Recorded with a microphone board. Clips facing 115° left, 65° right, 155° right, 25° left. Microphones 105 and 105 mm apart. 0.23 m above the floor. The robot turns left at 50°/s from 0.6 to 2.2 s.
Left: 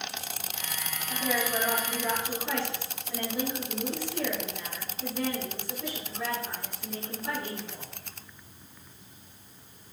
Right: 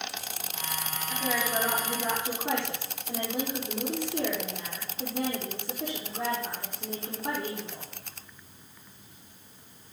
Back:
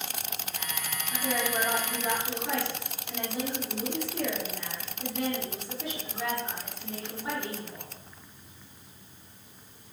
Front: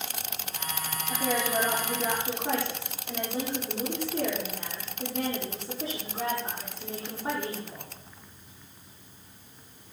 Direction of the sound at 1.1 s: 25° left.